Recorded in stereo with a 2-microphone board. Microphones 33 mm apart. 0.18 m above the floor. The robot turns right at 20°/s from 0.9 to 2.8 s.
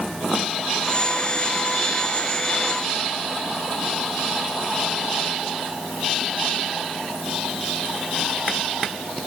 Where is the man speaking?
No man speaking in this recording.